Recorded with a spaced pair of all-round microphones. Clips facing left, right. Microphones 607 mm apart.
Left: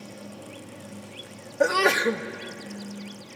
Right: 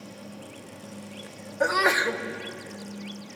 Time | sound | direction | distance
1.6 | a sneeze | 60° left (ahead or behind) | 0.6 m